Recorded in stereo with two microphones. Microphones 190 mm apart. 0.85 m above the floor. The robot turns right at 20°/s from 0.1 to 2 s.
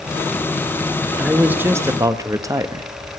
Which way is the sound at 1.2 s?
5° right (ahead or behind).